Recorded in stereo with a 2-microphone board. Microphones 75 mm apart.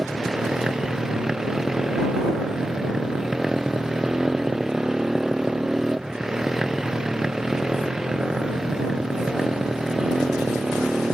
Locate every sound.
0.0 s a motorcycle: 5° right (ahead or behind)